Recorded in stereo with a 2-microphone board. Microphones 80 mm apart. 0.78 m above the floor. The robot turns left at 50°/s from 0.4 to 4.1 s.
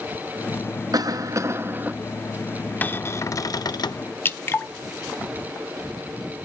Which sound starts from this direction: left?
Dripping, at 4.2 s.